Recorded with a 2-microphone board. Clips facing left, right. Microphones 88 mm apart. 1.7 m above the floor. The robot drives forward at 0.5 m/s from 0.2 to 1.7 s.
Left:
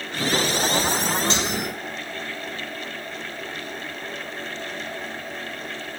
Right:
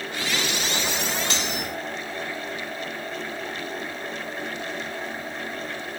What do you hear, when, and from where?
1.3 s cutlery clinking: 30° left (ahead or behind), 4.5 m